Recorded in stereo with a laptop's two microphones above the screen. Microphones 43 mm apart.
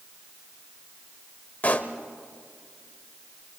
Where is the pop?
40° left (ahead or behind), 1.2 m.